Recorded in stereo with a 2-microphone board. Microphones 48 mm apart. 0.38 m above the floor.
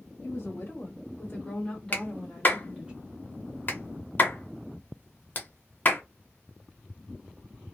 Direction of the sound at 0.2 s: 45° left (ahead or behind).